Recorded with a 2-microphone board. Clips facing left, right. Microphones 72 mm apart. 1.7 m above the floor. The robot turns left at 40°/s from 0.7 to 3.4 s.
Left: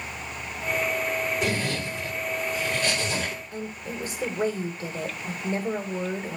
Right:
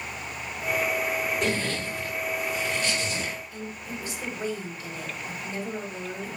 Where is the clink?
No clink in this recording.